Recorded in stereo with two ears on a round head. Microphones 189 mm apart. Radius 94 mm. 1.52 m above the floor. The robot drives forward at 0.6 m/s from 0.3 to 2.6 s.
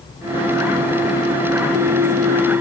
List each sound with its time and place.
Only background noise.